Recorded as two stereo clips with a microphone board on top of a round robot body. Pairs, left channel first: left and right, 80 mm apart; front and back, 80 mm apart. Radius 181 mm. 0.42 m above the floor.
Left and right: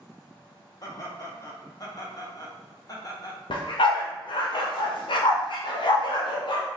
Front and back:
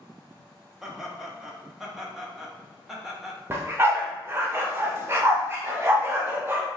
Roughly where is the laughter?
Left.